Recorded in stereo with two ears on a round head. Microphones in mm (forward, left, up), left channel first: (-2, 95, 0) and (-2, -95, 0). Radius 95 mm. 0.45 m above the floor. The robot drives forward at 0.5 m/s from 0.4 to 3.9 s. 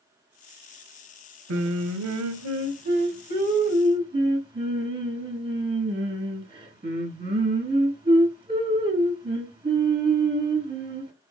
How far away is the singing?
About 0.5 m.